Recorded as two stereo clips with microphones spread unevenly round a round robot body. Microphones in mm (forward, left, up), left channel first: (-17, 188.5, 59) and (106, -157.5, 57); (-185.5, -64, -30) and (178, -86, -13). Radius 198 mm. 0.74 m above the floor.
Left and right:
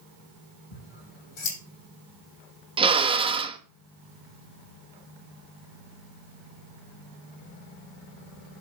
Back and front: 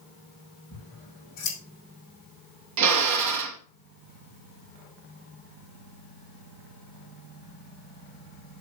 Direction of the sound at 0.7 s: 105° left.